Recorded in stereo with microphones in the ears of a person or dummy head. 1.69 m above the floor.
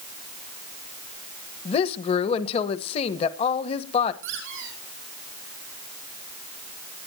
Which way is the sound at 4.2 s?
65° right (ahead or behind).